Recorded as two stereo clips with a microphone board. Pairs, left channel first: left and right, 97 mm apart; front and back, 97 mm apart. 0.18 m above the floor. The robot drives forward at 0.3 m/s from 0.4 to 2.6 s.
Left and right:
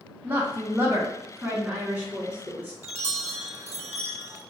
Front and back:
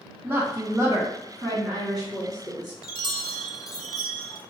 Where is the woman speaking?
135° right, 1.3 m; by 2.7 s 155° right, 1.7 m.